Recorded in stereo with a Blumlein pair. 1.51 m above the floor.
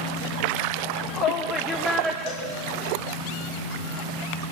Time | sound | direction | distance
0.8 | a shout | 45° left | 2.5 m
2.3 | a cowbell | 45° left | 5.5 m